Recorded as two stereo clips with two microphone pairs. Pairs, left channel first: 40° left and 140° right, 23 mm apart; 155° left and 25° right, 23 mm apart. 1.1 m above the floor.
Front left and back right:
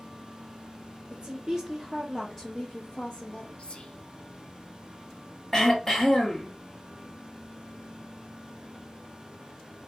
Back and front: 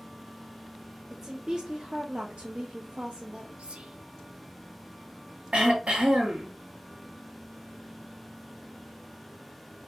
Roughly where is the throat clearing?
Ahead right.